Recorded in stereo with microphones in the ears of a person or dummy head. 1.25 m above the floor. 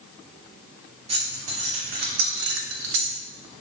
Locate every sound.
1.1 s keys jangling: 30° right (ahead or behind), 1.2 m; by 3.1 s 50° right (ahead or behind), 0.6 m